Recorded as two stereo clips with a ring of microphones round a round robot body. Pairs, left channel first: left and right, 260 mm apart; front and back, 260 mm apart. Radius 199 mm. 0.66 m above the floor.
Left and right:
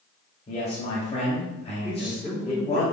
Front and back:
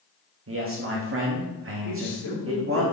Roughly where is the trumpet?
No trumpet in this recording.